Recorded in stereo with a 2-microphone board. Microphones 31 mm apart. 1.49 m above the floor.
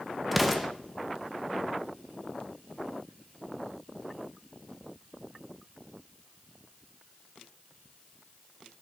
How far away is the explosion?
About 0.8 m.